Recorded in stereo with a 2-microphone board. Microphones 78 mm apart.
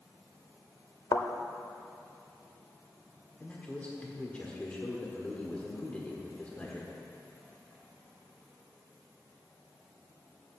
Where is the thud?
55° left (ahead or behind), 0.6 m.